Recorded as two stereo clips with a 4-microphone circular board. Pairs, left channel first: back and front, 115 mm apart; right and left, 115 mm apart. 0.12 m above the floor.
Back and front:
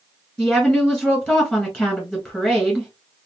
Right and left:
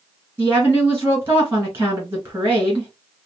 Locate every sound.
0.4 s a woman speaking: 120° left, 1.3 m